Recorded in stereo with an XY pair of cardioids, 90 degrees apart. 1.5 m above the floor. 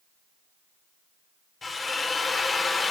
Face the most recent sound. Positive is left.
turn(degrees=35)